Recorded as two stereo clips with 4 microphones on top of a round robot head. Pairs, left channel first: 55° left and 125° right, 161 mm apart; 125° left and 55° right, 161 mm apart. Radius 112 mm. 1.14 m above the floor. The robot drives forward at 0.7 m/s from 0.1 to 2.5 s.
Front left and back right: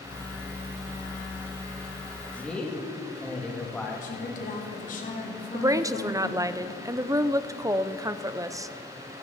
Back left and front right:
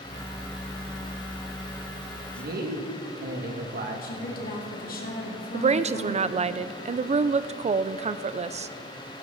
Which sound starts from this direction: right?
A woman speaking, at 5.5 s.